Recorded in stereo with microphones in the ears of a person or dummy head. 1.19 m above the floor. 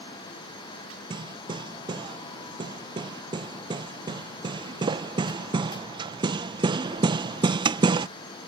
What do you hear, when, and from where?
1.1 s hammering: 20° right (ahead or behind)